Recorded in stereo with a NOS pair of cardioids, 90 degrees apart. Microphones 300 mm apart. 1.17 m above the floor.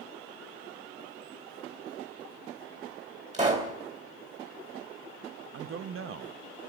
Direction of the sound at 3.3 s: 25° right.